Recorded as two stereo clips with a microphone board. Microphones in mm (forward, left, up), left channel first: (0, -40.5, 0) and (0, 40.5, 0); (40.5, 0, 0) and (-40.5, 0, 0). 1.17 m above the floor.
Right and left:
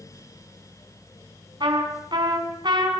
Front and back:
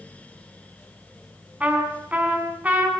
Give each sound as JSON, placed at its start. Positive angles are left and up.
{"t": 1.6, "sound": "a trumpet", "azimuth_deg": 110, "distance_m": 4.5}